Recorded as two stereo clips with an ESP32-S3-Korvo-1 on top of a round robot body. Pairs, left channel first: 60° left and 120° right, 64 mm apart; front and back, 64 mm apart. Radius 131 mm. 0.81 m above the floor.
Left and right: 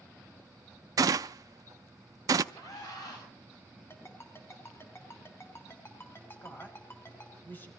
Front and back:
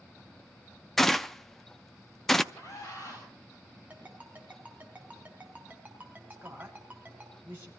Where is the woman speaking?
120° left, 5.5 m.